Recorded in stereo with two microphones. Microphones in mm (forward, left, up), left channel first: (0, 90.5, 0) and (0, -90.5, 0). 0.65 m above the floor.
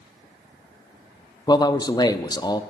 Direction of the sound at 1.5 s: 20° left (ahead or behind).